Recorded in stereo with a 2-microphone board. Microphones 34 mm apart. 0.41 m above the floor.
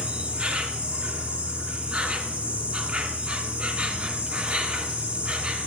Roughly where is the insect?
Right.